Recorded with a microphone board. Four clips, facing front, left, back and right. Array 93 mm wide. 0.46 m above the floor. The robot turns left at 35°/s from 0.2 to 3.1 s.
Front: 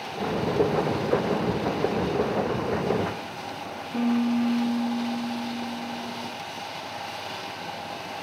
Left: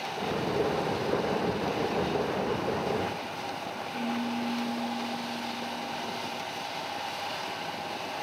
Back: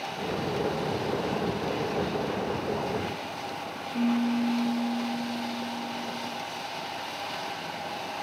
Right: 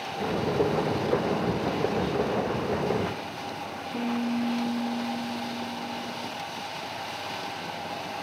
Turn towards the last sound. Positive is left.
turn(degrees=-30)